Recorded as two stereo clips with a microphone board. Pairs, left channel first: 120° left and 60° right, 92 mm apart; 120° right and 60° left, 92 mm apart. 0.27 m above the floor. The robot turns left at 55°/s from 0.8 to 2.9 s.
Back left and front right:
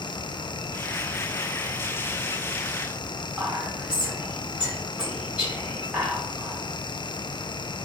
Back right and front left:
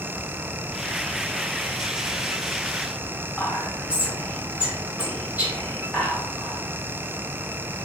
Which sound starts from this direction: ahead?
Whispering, at 3.4 s.